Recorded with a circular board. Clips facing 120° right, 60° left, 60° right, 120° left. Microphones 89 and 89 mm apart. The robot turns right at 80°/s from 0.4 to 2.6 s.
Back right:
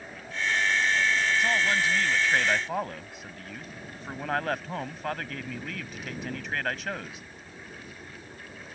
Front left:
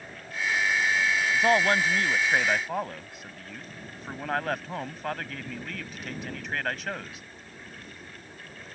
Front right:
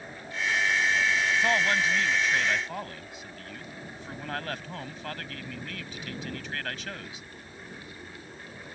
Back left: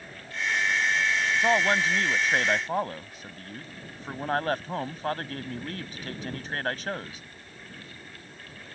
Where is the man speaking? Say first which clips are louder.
Front left 3 dB, back left 5 dB; 50° left; by 7.2 s 150° left.